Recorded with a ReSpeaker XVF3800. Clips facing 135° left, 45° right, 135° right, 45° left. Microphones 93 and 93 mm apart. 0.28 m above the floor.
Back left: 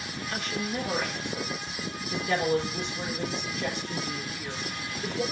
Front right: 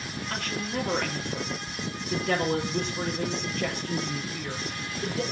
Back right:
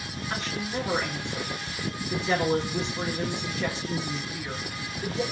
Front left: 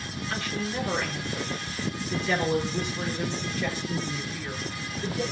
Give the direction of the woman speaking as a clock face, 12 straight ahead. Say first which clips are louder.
Even, even; 2 o'clock.